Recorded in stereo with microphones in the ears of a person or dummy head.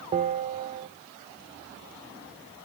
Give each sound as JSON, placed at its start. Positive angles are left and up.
{"t": 0.1, "sound": "a bell", "side_deg": -40, "distance_m": 1.1}